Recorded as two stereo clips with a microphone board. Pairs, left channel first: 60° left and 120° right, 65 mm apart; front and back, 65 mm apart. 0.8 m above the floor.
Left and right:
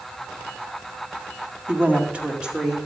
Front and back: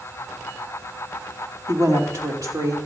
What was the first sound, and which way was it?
A woman speaking, 170° right.